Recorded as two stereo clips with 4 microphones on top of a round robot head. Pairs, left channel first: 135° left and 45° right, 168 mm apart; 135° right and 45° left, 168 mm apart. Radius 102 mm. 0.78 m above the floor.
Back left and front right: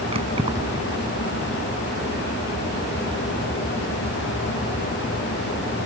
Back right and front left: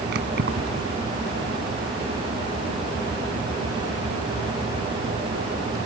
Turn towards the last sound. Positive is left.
turn(degrees=15)